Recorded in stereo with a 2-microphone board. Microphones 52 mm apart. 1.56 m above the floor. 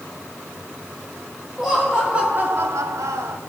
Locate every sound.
1.6 s laughter: 5° right (ahead or behind), 2 m; by 3.4 s 55° right (ahead or behind), 1.3 m